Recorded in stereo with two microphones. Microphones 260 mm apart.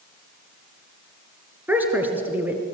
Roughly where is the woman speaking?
Centre.